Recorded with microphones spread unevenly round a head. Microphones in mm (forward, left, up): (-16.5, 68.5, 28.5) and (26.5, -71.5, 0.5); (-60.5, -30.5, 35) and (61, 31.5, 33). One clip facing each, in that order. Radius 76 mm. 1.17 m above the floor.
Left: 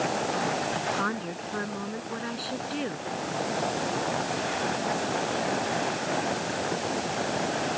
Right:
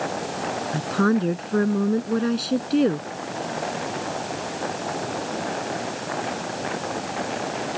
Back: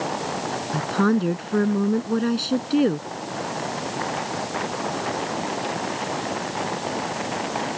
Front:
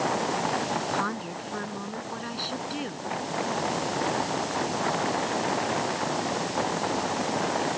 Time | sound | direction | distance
0.7 | a woman speaking | 115° right | ?